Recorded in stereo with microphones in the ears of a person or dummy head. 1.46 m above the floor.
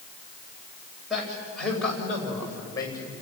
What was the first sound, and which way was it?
A man speaking, centre (ahead or behind).